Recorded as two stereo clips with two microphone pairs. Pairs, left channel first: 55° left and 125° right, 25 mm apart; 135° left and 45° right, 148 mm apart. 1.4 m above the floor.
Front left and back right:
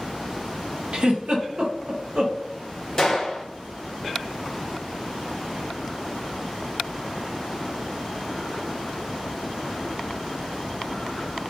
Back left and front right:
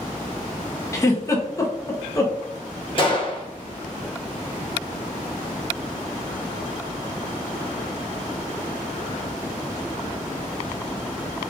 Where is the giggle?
160° right, 0.5 m.